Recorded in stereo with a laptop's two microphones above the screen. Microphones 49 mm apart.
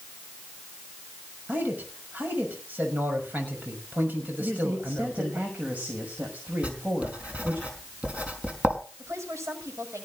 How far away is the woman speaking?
About 7 m.